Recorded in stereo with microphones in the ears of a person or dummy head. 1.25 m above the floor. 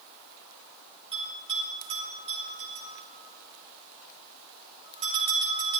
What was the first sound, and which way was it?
A bell, 35° right (ahead or behind).